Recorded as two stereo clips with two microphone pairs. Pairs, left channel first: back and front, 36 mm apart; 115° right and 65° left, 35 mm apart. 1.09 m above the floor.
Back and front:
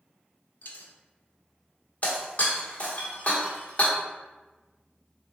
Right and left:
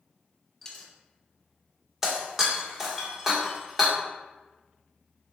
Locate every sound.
0.6 s a dropped coin: 170° left, 0.5 m
2.0 s breaking glass: 135° left, 0.9 m